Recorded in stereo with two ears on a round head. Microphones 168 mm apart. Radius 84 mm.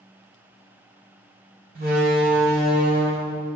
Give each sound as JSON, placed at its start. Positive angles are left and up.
{"t": 1.8, "sound": "a door slam", "side_deg": -55, "distance_m": 2.5}